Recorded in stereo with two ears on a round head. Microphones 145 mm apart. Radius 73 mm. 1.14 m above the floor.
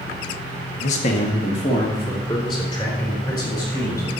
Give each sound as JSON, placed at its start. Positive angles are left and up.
{"t": 0.8, "sound": "a man speaking", "side_deg": 45, "distance_m": 1.4}